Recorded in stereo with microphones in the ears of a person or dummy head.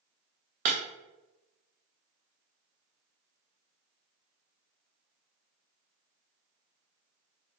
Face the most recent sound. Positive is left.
turn(degrees=-35)  # may be behind; listen again after turning